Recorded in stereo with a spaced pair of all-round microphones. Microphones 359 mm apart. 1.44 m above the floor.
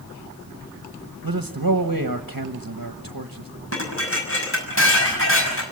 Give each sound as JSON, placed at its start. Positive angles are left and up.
{"t": 1.2, "sound": "a man speaking", "side_deg": -65, "distance_m": 1.3}
{"t": 3.7, "sound": "dishes clattering", "side_deg": 35, "distance_m": 6.0}